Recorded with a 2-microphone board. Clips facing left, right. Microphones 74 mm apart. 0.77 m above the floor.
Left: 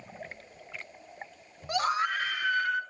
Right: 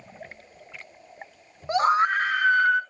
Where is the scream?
25° right (ahead or behind), 0.8 m; by 2.8 s 55° right (ahead or behind), 1.2 m.